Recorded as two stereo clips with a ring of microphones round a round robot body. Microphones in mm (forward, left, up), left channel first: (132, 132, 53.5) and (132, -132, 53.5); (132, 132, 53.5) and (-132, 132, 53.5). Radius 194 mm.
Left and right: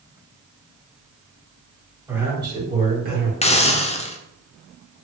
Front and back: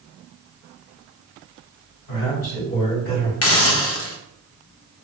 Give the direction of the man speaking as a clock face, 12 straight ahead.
12 o'clock.